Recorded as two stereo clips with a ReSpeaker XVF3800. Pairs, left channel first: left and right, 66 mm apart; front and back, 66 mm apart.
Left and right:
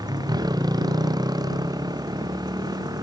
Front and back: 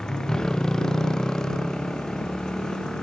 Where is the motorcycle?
80° right.